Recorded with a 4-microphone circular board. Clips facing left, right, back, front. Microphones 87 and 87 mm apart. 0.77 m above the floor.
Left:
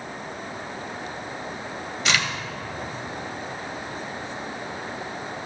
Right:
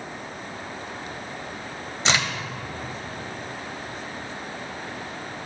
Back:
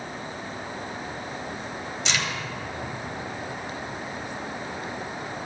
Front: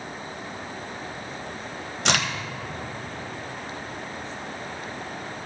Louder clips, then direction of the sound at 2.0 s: Right 1 dB, front 5 dB; 30° right.